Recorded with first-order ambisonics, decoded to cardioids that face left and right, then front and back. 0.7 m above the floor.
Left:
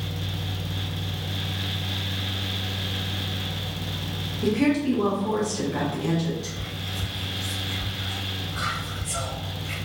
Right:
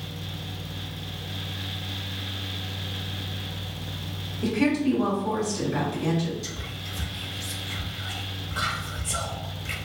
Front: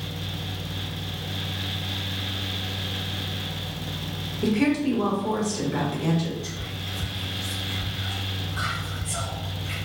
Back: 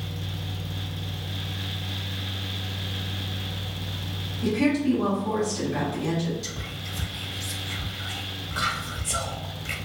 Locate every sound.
4.4 s a woman speaking: 10° left, 0.9 m
6.4 s whispering: 155° right, 0.6 m